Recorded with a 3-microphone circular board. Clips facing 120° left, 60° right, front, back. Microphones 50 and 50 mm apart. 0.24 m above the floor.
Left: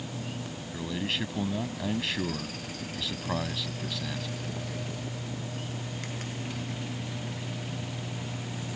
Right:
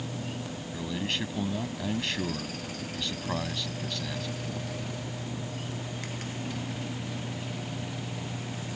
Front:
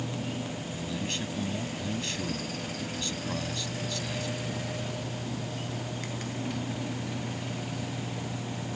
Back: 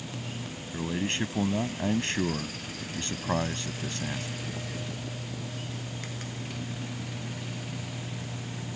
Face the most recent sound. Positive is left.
turn(degrees=-155)